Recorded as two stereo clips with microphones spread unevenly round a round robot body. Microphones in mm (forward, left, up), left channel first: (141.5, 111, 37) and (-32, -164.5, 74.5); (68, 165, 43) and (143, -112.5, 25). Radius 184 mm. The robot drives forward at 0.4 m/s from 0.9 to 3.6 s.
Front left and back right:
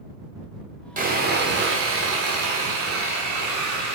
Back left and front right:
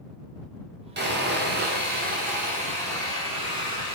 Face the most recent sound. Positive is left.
turn(degrees=-140)